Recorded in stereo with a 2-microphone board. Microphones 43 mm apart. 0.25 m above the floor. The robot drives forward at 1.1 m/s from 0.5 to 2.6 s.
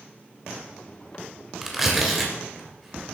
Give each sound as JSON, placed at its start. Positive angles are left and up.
{"t": 1.6, "sound": "tearing paper", "side_deg": -5, "distance_m": 1.8}